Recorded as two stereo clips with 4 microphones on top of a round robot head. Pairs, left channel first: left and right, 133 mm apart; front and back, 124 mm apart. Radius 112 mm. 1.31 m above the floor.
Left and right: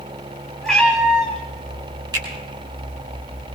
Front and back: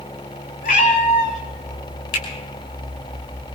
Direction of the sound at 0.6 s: Straight ahead.